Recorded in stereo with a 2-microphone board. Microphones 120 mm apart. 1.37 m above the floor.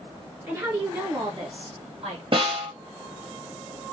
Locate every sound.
0.5 s a woman speaking: 25° right (ahead or behind), 2 m; by 2.2 s 50° right (ahead or behind), 2 m
2.3 s a snare drum: 50° right (ahead or behind), 1.1 m